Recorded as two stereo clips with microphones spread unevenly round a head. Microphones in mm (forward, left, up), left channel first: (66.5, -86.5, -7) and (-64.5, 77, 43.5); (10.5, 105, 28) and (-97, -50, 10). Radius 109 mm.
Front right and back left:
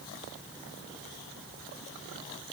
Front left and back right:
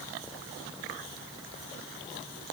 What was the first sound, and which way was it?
Only background noise.